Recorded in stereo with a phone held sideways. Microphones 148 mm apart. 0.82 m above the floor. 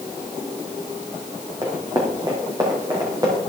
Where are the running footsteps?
30° right (ahead or behind), 3 m; by 3.4 s 25° right (ahead or behind), 5.5 m.